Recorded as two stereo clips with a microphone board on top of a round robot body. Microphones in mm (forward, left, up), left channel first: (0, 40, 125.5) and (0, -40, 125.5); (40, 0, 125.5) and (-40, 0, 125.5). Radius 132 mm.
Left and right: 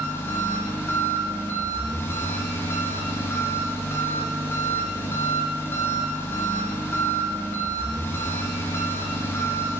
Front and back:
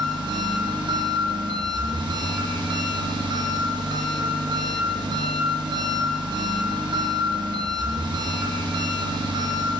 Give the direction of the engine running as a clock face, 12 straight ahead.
7 o'clock.